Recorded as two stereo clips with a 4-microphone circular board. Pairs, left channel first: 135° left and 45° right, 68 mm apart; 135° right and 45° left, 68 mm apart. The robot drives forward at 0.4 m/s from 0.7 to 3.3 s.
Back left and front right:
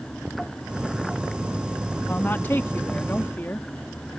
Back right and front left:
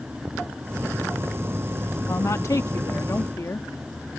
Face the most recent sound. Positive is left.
turn(degrees=-170)